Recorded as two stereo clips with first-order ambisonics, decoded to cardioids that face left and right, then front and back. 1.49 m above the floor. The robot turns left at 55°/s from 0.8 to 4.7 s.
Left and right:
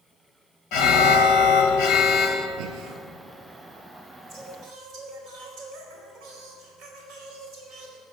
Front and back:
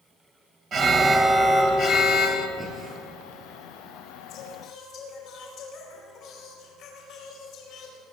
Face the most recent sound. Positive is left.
turn(degrees=-55)